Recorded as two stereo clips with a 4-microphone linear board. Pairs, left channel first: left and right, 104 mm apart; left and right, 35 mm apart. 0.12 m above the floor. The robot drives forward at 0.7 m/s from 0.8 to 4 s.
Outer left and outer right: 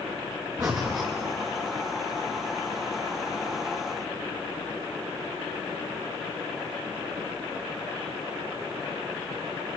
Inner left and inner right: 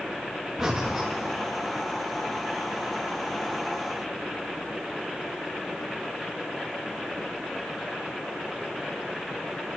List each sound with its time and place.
0.6 s breathing: 20° right (ahead or behind), 2.5 m; by 1.1 s 25° right (ahead or behind), 2.5 m